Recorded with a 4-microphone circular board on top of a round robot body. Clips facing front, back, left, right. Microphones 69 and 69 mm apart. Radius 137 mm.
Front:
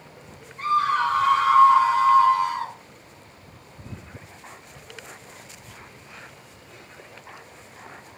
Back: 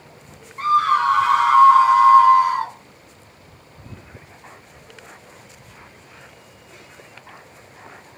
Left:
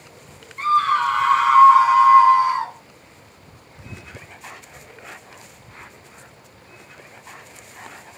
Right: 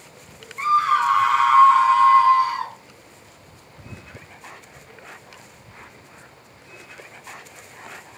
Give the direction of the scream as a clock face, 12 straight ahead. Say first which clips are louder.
Back 5 dB, even; 6 o'clock.